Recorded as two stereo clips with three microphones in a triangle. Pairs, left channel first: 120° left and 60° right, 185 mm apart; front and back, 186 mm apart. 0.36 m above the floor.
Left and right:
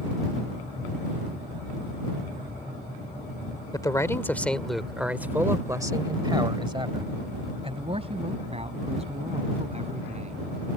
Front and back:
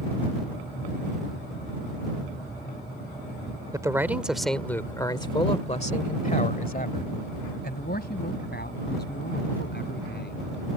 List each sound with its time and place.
3.7 s a man speaking: 145° left; by 10.4 s 10° right